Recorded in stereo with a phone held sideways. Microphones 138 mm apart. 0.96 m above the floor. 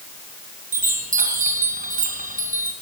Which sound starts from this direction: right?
A chime, at 0.7 s.